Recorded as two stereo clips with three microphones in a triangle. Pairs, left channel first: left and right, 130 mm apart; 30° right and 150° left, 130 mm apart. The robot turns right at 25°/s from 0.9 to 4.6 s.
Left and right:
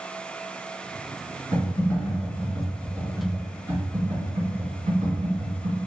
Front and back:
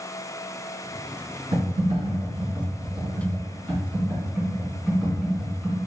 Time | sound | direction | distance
1.5 | typing on a keyboard | 155° left | 1.9 m